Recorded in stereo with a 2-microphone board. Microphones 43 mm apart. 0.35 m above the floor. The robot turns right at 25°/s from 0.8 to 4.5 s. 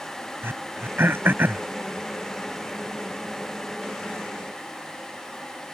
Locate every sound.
0.4 s throat clearing: 60° right (ahead or behind); by 1.6 s 45° right (ahead or behind)